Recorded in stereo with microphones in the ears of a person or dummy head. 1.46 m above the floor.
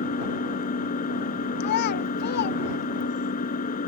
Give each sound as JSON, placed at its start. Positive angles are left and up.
{"t": 0.0, "sound": "an engine running", "side_deg": 45}
{"t": 1.6, "sound": "a child speaking", "side_deg": 50}